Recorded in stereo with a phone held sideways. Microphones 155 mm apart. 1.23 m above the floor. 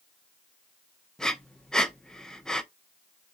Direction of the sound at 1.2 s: 5° left (ahead or behind).